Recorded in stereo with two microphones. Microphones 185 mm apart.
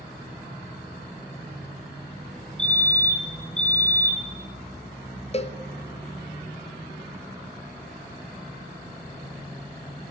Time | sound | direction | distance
2.6 | a fire alarm | 5° left (ahead or behind) | 6 m
5.3 | a cowbell | 35° left (ahead or behind) | 1.2 m